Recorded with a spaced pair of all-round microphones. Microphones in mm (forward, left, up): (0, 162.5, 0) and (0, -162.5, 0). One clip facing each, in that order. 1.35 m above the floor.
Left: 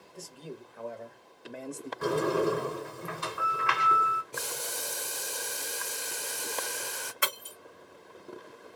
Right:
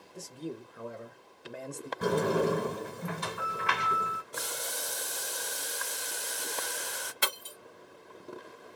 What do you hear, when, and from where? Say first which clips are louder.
0.1 s a man speaking: right 4 dB; 30° right (ahead or behind), 1.2 m; by 1.9 s 15° left (ahead or behind), 0.6 m
2.0 s a sliding door: even; 45° right (ahead or behind), 1.7 m
4.3 s boiling: even; 35° left (ahead or behind), 0.8 m
7.2 s breaking glass: even; 50° right (ahead or behind), 1.2 m